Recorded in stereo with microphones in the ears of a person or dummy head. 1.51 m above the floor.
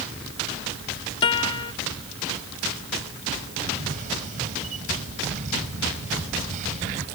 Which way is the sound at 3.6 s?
45° right (ahead or behind).